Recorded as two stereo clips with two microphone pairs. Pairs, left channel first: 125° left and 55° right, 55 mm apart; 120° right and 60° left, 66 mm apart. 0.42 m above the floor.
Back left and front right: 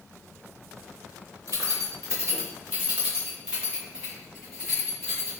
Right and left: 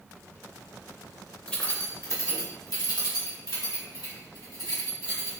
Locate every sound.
1.5 s keys jangling: 50° right, 0.9 m; by 5.4 s 140° right, 3 m